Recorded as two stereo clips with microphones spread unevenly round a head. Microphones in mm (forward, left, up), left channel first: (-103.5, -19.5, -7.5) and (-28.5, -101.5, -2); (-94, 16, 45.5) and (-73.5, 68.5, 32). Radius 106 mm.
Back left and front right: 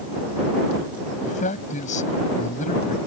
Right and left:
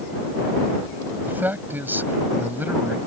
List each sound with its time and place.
1.2 s a man speaking: 125° left